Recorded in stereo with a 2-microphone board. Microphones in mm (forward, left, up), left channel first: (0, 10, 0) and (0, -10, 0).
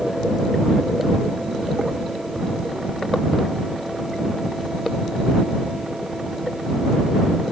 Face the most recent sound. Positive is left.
No sound to turn to.